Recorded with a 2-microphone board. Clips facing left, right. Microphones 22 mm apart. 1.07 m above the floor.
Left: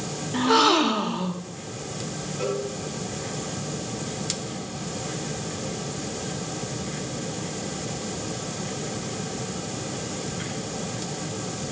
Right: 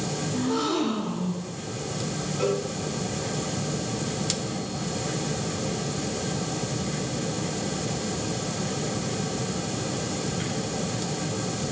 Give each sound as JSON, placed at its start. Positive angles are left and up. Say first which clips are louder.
{"t": 0.3, "sound": "a gasp", "louder": "left 8 dB", "side_deg": 65, "distance_m": 0.8}
{"t": 2.4, "sound": "a cowbell", "louder": "right 2 dB", "side_deg": -10, "distance_m": 1.7}